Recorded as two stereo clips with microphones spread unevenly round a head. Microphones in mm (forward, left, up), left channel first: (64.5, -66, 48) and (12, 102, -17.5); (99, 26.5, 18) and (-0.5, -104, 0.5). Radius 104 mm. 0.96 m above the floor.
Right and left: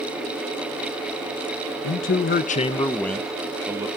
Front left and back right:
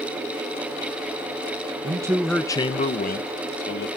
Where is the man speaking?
80° right, 0.7 m; by 3.9 s 40° left, 1.2 m.